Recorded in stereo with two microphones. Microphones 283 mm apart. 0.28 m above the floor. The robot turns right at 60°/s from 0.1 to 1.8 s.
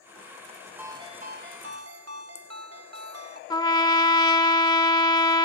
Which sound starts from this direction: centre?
A trumpet, at 3.5 s.